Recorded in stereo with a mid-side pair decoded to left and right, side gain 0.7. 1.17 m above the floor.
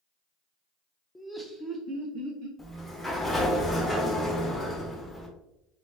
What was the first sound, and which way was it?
Laughter, 10° left.